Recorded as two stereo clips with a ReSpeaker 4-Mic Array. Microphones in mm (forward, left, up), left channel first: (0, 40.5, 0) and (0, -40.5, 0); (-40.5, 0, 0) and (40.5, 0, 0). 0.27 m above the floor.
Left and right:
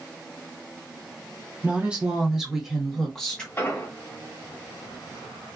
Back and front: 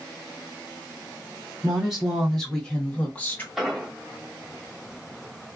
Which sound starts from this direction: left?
An explosion, at 3.6 s.